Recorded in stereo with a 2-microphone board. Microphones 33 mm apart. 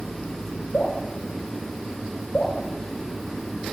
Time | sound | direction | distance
0.7 | dripping | 55° left (ahead or behind) | 3 m